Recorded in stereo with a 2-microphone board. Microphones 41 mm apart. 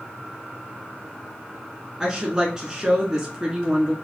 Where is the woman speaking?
20° right (ahead or behind), 1.1 m.